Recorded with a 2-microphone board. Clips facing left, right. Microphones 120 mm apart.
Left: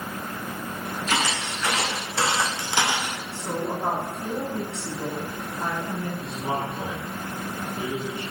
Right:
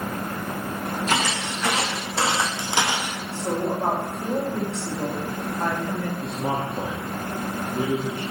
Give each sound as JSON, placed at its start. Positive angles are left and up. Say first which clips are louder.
{"t": 1.1, "sound": "footsteps", "louder": "even", "side_deg": -35, "distance_m": 3.0}
{"t": 3.3, "sound": "a woman speaking", "louder": "right 4 dB", "side_deg": -60, "distance_m": 3.5}
{"t": 6.2, "sound": "a man speaking", "louder": "right 2 dB", "side_deg": -45, "distance_m": 1.8}